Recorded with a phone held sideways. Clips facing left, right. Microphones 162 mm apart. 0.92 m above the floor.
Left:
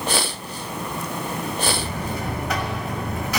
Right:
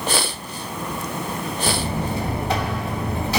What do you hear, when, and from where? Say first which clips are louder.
1.7 s a buzzer: right 2 dB; 30° right (ahead or behind), 1.2 m